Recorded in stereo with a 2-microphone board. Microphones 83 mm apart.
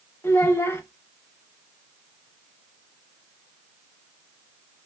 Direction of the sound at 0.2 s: 30° left (ahead or behind).